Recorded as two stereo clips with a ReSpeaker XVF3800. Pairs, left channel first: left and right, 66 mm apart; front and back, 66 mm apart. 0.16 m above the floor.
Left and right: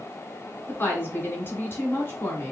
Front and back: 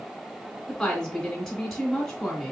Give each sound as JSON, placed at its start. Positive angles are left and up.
{"t": 0.7, "sound": "a woman speaking", "azimuth_deg": 80, "distance_m": 1.8}